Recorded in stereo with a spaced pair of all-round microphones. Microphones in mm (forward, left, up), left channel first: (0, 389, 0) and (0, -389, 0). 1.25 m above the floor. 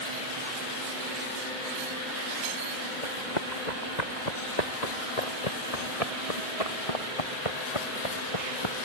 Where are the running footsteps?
65° left (ahead or behind); by 8.8 s 35° left (ahead or behind).